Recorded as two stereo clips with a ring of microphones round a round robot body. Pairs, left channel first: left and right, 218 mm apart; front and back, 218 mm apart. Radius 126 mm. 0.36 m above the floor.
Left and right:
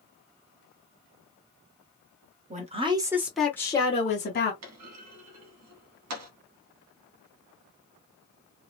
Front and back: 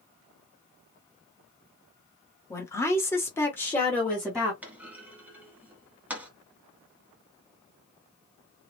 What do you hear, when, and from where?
2.5 s a woman speaking: 70° right, 1.2 m; by 4.5 s 85° left, 1.3 m
4.6 s a clunk: 95° right, 1.1 m